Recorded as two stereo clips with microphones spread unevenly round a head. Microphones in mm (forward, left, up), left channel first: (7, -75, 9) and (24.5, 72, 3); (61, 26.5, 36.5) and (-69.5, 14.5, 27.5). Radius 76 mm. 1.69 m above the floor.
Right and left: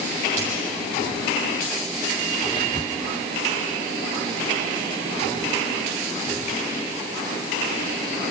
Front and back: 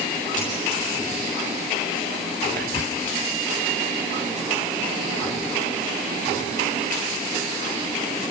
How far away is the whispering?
About 0.7 m.